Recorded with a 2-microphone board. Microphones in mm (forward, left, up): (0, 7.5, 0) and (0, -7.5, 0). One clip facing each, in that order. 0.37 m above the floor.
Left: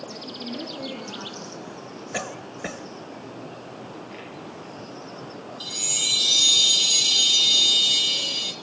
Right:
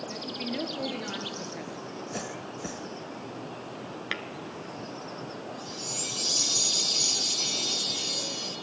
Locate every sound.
0.1 s a woman speaking: 45° right (ahead or behind), 5.5 m
2.1 s a cough: 50° left (ahead or behind), 1.7 m
4.1 s tapping: 80° right, 2 m
5.6 s a chime: 70° left (ahead or behind), 1.8 m